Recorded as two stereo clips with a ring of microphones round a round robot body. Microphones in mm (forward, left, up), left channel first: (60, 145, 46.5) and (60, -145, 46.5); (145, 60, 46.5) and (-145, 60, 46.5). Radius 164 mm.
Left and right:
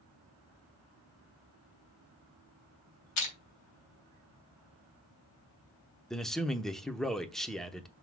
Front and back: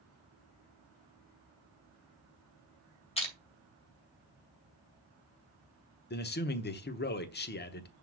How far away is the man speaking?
About 0.9 m.